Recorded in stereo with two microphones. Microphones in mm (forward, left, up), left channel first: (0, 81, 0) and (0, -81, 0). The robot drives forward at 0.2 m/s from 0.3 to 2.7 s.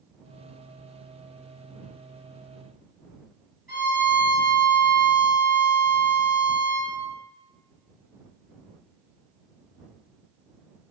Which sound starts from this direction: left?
A violin, at 3.7 s.